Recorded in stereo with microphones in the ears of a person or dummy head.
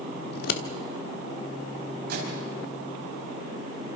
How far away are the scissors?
About 1.6 m.